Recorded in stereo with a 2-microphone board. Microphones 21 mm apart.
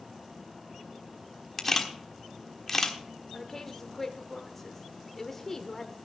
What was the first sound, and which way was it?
A camera shutter, 10° left (ahead or behind).